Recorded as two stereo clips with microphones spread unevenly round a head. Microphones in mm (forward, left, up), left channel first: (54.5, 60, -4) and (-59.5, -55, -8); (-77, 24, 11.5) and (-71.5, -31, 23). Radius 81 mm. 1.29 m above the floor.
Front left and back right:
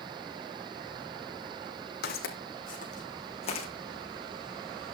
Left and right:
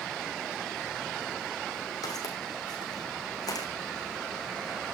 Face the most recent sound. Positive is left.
turn(degrees=100)